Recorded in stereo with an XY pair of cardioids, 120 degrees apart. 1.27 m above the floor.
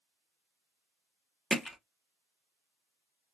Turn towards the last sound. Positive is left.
turn(degrees=10)